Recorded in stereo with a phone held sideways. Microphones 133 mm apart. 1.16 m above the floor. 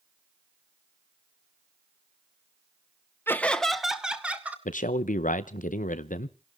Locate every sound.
3.3 s laughter: 15° left (ahead or behind), 0.9 m; by 4.5 s 10° right (ahead or behind), 2 m
4.7 s a man speaking: 75° left (ahead or behind), 0.6 m